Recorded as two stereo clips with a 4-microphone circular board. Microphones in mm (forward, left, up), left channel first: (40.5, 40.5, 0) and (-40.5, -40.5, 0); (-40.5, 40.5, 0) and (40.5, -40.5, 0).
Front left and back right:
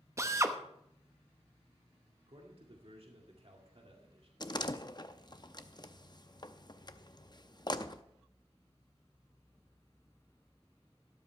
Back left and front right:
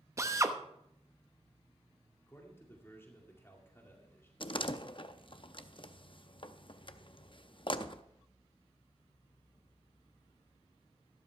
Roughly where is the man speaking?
Behind.